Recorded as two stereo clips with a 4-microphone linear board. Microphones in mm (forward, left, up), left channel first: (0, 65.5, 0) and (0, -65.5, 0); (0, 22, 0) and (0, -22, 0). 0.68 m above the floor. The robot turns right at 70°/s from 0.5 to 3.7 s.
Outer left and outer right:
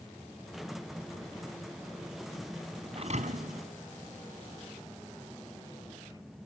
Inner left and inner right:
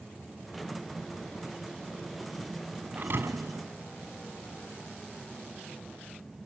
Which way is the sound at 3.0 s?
135° right.